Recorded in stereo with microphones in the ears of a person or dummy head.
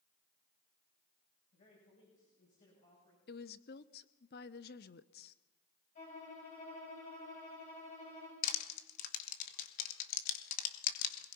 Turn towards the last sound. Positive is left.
turn(degrees=50)  # may be behind; listen again after turning